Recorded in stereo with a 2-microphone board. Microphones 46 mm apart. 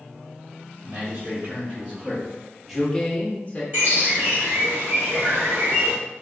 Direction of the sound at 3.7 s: 45° right (ahead or behind).